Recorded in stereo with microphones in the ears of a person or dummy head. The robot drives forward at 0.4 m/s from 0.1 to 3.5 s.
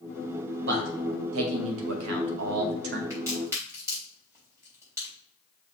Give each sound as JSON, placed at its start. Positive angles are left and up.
{"t": 0.7, "sound": "a man speaking", "side_deg": -65, "distance_m": 1.1}
{"t": 3.1, "sound": "a crack", "side_deg": -20, "distance_m": 3.0}